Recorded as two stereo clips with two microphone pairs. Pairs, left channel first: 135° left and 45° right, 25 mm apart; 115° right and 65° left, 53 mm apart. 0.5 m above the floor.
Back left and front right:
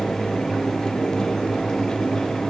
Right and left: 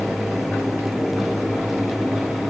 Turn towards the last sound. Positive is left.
No sound to turn to.